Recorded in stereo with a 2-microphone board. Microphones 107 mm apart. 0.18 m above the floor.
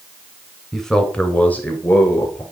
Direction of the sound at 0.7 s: Centre (ahead or behind).